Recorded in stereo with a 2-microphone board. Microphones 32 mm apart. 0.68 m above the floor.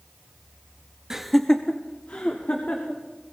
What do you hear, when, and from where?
1.1 s laughter: 15° right (ahead or behind), 0.7 m; by 3.0 s 60° left (ahead or behind), 2 m